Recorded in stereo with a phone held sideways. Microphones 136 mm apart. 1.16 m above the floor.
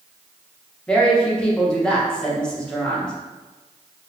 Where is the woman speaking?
5° left (ahead or behind), 1.1 m.